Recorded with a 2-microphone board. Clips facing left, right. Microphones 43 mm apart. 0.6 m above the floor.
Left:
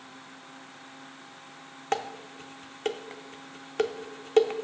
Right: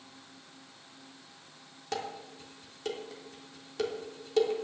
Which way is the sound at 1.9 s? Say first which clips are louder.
Left 6 dB; 50° left (ahead or behind).